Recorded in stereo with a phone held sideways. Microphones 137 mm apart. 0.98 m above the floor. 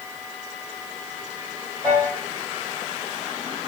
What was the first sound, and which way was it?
A piano, 15° right (ahead or behind).